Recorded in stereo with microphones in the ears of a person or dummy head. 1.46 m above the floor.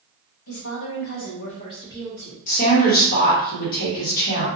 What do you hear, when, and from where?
0.5 s a woman speaking: 70° left (ahead or behind), 1.0 m; by 2.4 s 10° left (ahead or behind), 1.2 m
2.5 s a woman speaking: 45° left (ahead or behind), 1.0 m